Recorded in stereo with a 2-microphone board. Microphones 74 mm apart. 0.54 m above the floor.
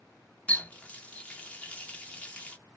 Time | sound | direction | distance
0.5 | a running tap | 15° left (ahead or behind) | 0.6 m